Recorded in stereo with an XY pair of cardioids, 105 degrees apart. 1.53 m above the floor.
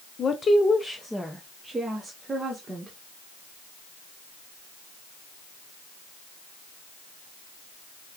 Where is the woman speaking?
40° left, 0.7 m; by 2.9 s 25° right, 1.5 m.